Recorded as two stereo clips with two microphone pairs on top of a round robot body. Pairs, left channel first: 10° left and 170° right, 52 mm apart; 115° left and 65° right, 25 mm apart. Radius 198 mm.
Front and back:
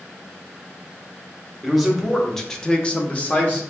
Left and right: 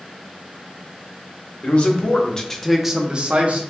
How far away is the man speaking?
About 1.4 m.